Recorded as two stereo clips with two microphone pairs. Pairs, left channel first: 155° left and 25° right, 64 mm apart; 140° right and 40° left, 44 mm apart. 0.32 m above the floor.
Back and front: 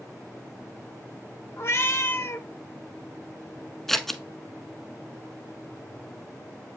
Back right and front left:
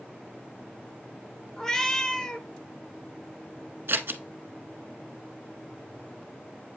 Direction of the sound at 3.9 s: 70° left.